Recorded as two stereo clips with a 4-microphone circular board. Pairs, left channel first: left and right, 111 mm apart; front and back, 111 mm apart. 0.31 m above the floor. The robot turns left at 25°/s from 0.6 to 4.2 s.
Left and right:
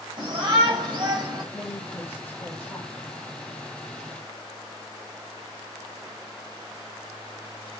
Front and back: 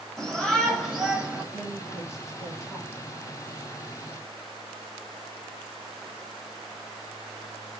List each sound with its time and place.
0.2 s a shout: 85° right, 1.9 m; by 1.4 s 105° right, 1.9 m
1.5 s a woman speaking: 50° left, 1.0 m; by 2.9 s 15° left, 1.0 m